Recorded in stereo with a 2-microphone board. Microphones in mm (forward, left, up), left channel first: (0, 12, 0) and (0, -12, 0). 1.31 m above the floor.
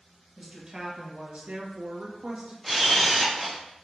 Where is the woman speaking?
20° right (ahead or behind), 1.2 m; by 2.5 s 55° right (ahead or behind), 0.7 m.